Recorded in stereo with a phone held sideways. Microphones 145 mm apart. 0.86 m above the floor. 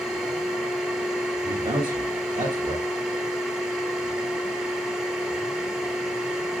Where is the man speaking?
30° right (ahead or behind), 4.5 m.